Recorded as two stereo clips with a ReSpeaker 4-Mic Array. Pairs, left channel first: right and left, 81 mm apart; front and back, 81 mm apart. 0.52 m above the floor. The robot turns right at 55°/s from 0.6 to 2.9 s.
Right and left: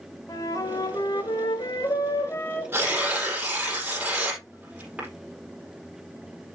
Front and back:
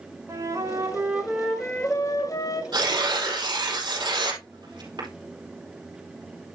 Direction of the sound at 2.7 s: 150° left.